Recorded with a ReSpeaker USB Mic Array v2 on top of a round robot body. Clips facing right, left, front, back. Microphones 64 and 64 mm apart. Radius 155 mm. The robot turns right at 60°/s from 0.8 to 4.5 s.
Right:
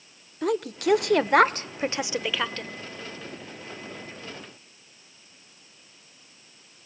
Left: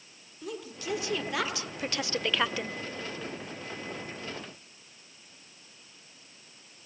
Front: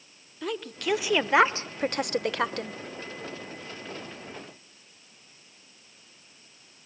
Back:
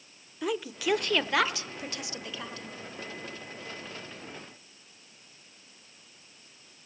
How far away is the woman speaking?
About 1.5 m.